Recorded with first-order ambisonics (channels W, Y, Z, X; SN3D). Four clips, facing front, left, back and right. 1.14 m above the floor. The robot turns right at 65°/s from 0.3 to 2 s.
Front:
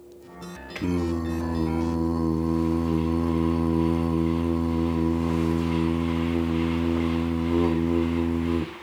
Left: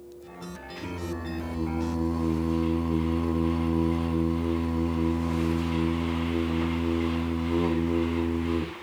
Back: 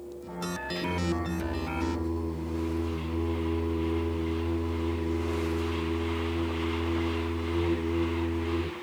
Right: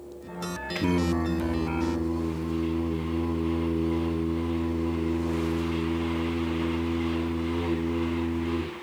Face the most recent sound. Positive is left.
turn(degrees=20)